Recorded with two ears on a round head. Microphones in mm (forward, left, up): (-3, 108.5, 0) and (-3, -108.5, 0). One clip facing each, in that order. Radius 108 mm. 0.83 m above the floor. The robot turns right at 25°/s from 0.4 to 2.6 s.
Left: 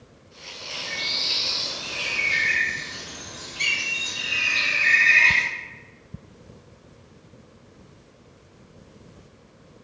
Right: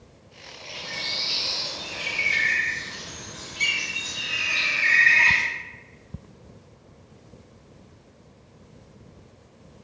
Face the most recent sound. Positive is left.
turn(degrees=175)